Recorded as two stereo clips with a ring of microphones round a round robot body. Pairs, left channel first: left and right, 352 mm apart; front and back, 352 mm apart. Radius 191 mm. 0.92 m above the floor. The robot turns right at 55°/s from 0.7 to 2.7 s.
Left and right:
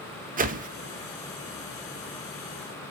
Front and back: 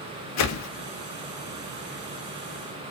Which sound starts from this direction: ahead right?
A whoosh, at 0.4 s.